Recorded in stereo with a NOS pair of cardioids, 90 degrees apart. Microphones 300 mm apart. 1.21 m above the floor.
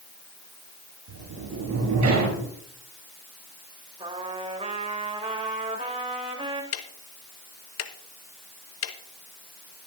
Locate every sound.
1.1 s a sliding door: 65° right, 8 m
4.0 s a trumpet: 20° right, 3 m
6.7 s ticking: 60° left, 1.2 m